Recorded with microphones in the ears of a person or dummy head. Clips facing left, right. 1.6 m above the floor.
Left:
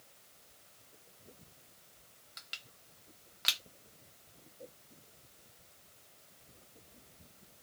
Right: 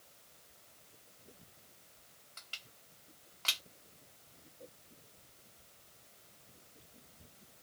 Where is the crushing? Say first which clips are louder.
Left 1 dB; 25° left (ahead or behind), 0.8 m.